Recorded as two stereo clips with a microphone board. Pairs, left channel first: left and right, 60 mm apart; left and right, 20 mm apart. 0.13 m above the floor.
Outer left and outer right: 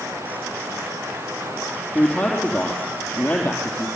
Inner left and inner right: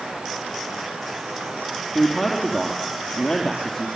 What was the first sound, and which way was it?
Running water, 50° right (ahead or behind).